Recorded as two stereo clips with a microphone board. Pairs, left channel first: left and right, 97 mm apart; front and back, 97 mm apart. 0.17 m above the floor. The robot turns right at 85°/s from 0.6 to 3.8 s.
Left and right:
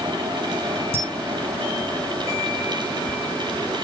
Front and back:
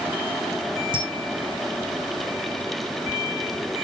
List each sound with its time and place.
0.9 s a camera shutter: 155° right, 1.3 m; by 1.0 s 145° right, 1.3 m